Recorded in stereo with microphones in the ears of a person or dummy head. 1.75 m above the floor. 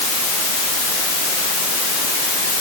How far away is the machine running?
I don't hear a machine running.